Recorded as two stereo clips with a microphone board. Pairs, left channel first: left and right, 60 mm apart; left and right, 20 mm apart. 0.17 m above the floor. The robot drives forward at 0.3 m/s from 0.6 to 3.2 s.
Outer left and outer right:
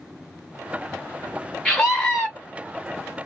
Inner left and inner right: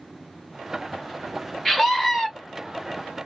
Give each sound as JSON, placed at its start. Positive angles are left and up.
{"t": 1.6, "sound": "a scream", "side_deg": 10, "distance_m": 1.5}